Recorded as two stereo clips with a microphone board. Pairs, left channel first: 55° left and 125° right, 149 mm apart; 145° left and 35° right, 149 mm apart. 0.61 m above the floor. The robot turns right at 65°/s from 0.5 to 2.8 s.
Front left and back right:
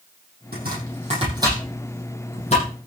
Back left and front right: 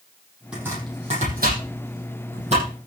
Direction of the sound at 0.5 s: 120° right.